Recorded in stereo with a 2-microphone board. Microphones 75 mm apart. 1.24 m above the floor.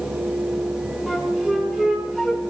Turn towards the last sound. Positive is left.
turn(degrees=-5)  # may be behind; listen again after turning